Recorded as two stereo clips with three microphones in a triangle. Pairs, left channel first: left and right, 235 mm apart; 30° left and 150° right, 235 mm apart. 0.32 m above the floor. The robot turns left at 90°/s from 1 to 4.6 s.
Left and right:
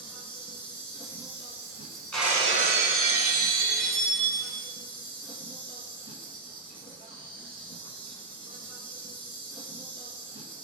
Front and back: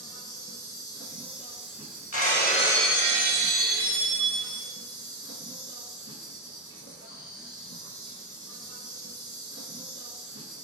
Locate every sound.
0.0 s an insect: 5° left, 1.1 m; by 10.7 s 40° left, 1.1 m
2.1 s breaking glass: 5° left, 0.6 m; by 4.7 s 140° left, 0.6 m